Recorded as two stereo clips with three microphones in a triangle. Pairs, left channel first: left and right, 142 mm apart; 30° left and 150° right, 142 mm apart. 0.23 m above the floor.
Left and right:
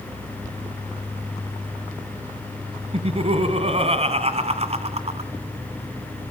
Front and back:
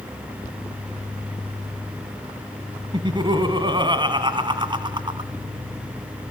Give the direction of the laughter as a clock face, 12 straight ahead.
4 o'clock.